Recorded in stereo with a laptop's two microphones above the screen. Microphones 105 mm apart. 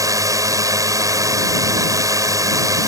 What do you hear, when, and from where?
0.0 s a drone: 35° right (ahead or behind)